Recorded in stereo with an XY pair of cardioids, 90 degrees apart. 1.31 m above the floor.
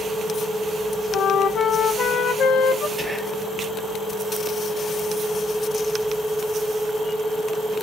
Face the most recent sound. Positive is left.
turn(degrees=0)